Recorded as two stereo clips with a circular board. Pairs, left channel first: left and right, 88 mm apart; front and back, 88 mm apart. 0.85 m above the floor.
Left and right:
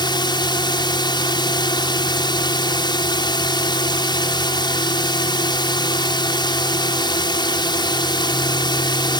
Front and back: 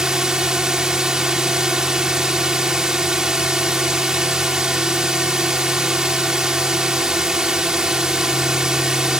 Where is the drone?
95° left.